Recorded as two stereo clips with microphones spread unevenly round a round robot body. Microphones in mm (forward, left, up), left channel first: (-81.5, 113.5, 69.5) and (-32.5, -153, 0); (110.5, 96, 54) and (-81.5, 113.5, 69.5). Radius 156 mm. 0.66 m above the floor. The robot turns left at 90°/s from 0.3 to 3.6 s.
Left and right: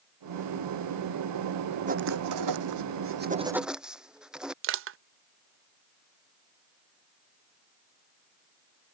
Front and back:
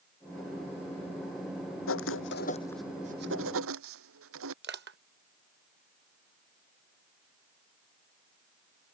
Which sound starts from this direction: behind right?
Crushing, at 4.6 s.